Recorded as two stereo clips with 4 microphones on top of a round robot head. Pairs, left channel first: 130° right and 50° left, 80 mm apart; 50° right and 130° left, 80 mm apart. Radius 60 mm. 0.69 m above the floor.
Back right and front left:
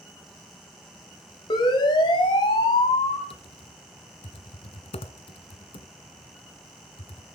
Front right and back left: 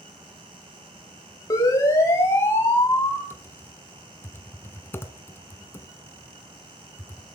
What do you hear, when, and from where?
1.5 s a siren: 100° right, 5 m; by 3.2 s 120° right, 6.5 m
3.3 s typing on a keyboard: 115° right, 1.4 m